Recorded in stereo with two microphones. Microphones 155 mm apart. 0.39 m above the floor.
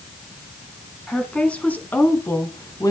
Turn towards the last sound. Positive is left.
turn(degrees=20)  # may be behind; listen again after turning